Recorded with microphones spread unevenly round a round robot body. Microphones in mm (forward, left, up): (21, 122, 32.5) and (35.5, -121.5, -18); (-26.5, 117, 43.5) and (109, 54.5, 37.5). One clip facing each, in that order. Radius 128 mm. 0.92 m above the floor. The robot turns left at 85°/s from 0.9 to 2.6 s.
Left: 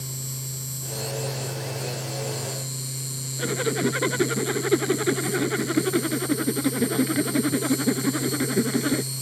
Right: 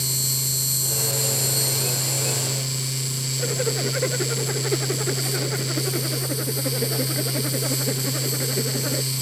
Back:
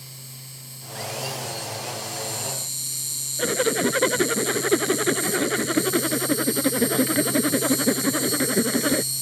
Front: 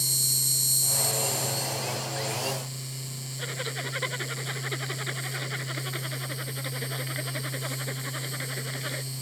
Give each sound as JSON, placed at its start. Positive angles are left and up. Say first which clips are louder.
{"t": 0.0, "sound": "an insect", "louder": "right 5 dB, front 6 dB", "azimuth_deg": -30}
{"t": 3.4, "sound": "a zipper", "louder": "left 2 dB, back 15 dB", "azimuth_deg": 130}